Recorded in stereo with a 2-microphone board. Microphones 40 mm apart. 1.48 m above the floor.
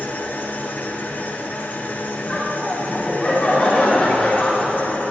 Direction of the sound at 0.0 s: 50° left (ahead or behind).